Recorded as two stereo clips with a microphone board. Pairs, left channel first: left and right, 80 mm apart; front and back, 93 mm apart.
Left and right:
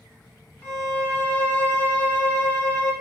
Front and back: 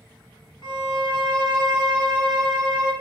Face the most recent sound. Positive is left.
turn(degrees=25)